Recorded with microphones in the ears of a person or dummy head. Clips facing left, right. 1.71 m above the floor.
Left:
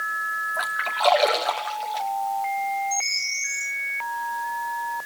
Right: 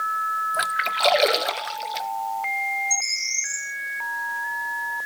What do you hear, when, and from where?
0.5 s a splash: 25° right (ahead or behind), 0.8 m
2.9 s a bird: 75° right (ahead or behind), 8.5 m